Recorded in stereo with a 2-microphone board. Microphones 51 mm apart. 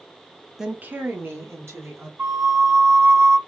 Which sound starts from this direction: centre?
A woman speaking, at 0.6 s.